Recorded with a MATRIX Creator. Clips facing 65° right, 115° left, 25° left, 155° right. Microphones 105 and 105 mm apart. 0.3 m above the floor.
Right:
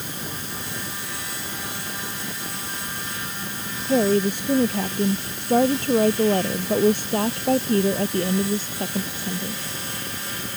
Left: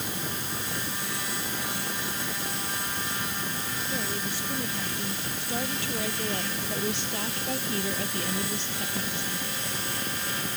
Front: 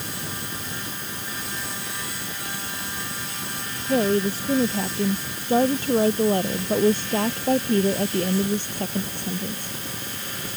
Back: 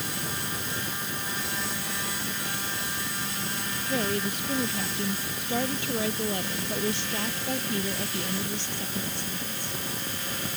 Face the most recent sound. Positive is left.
turn(degrees=-10)